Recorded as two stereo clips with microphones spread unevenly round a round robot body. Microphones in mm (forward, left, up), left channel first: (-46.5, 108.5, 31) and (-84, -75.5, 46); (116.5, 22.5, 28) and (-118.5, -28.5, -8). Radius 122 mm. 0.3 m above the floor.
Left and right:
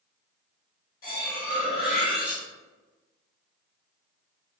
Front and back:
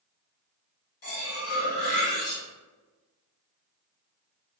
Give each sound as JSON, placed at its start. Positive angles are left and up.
{"t": 1.0, "sound": "cutlery clinking", "azimuth_deg": 40, "distance_m": 1.1}